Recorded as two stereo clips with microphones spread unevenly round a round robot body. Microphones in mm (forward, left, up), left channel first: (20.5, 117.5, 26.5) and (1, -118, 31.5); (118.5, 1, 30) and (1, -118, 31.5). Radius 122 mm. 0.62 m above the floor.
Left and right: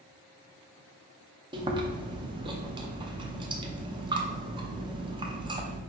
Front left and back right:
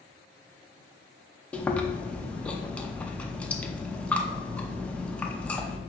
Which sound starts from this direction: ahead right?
Chewing, at 1.5 s.